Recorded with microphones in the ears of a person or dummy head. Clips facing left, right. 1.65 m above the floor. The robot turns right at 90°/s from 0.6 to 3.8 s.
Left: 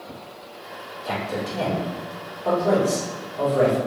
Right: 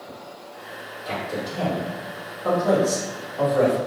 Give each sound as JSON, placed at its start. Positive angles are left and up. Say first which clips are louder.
{"t": 1.1, "sound": "a man speaking", "louder": "left 1 dB", "side_deg": 70, "distance_m": 1.8}